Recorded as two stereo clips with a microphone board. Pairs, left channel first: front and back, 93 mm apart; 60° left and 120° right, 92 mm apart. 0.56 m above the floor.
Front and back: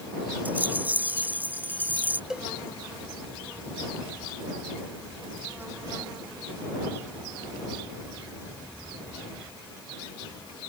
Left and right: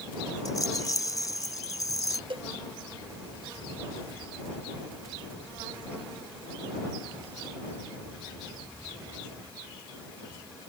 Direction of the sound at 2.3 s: 100° right.